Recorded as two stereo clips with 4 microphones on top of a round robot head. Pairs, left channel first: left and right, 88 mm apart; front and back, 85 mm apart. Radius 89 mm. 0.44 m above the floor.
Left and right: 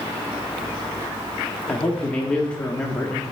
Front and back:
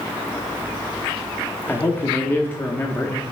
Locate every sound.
1.7 s a man speaking: 25° left, 1.0 m